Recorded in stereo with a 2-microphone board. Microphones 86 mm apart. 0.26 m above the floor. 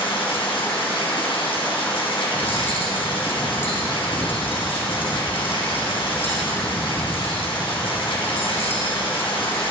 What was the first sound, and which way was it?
Running water, 90° left.